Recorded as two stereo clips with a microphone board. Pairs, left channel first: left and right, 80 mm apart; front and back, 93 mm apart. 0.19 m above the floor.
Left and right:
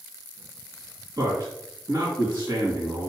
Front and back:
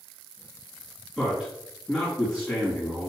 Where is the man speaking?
95° right, 3 m.